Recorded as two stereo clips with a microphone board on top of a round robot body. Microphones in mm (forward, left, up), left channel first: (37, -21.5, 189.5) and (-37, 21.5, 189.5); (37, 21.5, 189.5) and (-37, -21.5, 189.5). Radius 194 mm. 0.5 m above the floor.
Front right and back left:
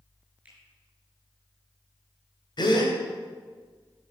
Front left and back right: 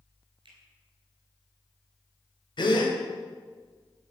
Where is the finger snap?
135° right, 6 m.